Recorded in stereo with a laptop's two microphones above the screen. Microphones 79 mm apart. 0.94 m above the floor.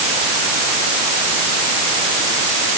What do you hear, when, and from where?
Only background noise.